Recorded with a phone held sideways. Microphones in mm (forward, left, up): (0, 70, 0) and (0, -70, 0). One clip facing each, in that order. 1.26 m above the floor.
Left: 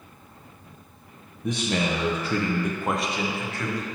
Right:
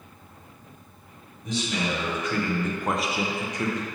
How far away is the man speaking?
About 0.9 m.